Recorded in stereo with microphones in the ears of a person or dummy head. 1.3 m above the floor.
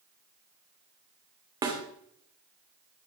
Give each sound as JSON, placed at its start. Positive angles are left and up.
{"t": 1.6, "sound": "a snare drum", "side_deg": -25, "distance_m": 2.0}